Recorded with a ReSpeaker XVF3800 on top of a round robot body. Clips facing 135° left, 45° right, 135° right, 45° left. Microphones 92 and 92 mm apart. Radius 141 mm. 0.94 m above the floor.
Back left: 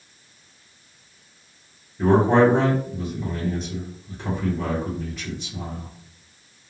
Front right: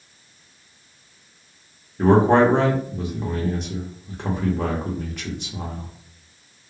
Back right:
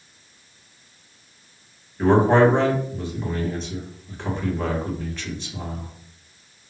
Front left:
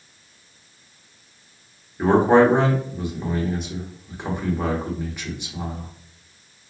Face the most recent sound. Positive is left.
turn(degrees=-30)